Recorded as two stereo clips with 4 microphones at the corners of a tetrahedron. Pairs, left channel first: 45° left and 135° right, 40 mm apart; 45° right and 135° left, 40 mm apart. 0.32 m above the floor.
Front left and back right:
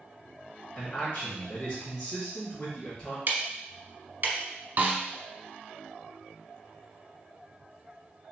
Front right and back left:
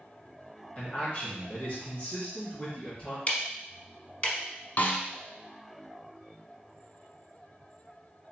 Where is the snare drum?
90° right, 0.6 m.